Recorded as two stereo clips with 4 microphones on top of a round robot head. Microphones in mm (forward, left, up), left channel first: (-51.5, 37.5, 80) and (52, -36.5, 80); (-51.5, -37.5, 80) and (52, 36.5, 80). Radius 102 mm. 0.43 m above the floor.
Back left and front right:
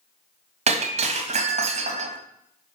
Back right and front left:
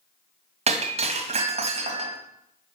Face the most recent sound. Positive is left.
turn(degrees=-5)